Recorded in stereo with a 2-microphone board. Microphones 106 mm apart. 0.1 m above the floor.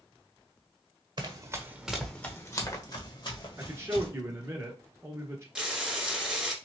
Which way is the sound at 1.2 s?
45° right (ahead or behind).